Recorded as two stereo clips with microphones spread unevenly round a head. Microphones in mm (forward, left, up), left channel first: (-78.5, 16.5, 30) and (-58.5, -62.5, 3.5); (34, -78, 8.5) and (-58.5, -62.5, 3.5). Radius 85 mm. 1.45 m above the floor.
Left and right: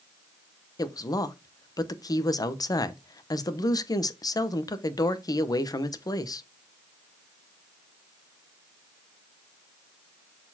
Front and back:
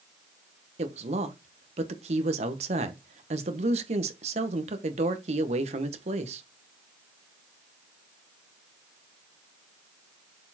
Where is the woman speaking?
150° left, 1.2 m.